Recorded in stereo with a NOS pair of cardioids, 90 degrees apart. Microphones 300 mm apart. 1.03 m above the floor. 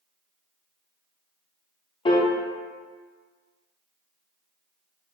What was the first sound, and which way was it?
A piano, 15° left.